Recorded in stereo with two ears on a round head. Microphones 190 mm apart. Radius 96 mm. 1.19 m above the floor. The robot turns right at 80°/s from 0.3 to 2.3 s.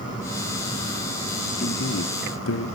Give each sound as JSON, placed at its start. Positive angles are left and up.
{"t": 1.6, "sound": "a man speaking", "azimuth_deg": 35, "distance_m": 1.0}